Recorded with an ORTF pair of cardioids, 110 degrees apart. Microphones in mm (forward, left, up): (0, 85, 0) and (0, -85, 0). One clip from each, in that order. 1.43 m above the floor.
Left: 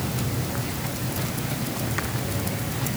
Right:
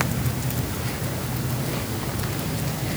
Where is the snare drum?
I don't hear a snare drum.